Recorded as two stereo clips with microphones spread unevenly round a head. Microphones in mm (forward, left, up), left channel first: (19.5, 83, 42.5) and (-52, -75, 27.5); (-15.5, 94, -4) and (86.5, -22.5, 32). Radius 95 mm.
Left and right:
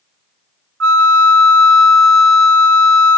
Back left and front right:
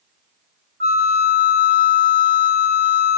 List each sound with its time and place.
0.8 s a flute: 110° right, 0.6 m